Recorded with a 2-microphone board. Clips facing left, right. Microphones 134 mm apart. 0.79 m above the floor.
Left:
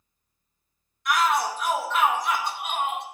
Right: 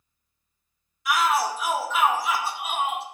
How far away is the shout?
About 0.6 m.